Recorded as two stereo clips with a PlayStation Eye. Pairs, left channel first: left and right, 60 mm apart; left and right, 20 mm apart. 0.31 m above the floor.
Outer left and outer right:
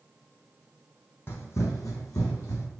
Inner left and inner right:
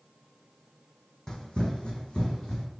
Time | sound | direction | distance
1.3 | running footsteps | 40° left (ahead or behind) | 0.6 m